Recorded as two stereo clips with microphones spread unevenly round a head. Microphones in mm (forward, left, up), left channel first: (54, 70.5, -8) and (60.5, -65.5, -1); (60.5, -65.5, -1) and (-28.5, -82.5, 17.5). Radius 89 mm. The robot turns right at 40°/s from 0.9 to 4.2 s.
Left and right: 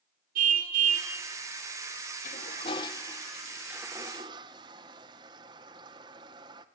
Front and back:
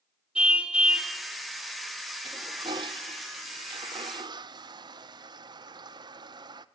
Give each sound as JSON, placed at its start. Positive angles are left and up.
{"t": 0.3, "sound": "a car horn", "azimuth_deg": -100, "distance_m": 2.0}
{"t": 2.2, "sound": "a toilet flushing", "azimuth_deg": 135, "distance_m": 0.7}